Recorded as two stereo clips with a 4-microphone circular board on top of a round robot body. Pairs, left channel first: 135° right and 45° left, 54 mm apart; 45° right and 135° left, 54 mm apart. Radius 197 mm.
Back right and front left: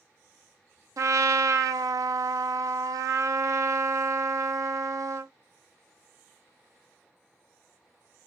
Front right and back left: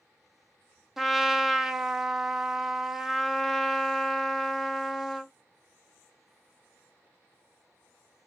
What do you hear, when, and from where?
1.0 s a trumpet: 50° left, 0.5 m